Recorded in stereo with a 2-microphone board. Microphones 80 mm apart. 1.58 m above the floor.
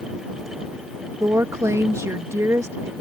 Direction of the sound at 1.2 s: 40° right (ahead or behind).